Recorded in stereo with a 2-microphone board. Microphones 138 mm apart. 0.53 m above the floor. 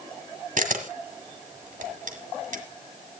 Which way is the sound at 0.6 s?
75° right (ahead or behind).